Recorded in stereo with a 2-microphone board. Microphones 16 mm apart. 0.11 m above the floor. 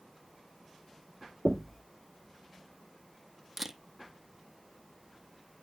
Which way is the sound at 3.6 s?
15° right (ahead or behind).